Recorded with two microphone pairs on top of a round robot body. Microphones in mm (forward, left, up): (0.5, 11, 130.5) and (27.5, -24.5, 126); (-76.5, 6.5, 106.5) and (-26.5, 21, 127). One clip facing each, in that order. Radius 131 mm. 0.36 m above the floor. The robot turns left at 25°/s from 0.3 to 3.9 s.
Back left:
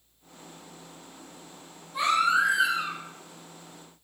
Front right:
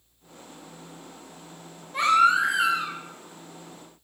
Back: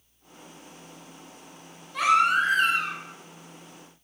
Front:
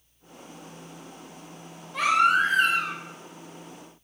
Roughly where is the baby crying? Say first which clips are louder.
Front right 4 dB, even; ahead right.